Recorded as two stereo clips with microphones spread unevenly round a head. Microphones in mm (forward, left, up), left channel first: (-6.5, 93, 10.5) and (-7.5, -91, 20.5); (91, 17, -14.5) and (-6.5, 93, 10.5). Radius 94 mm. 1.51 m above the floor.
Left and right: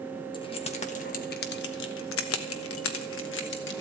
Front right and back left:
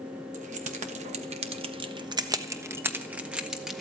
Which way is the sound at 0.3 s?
155° left.